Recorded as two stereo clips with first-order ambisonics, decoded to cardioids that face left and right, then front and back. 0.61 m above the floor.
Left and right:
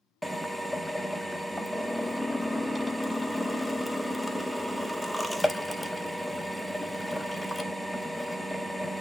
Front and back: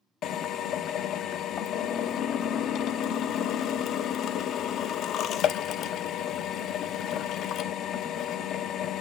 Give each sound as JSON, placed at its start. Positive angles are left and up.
{"t": 0.2, "sound": "a drill", "azimuth_deg": 0, "distance_m": 0.5}